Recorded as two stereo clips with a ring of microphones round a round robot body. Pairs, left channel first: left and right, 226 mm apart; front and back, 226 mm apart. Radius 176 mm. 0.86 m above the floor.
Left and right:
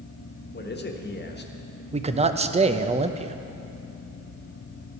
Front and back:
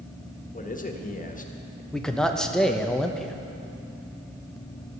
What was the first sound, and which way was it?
A man speaking, 50° left.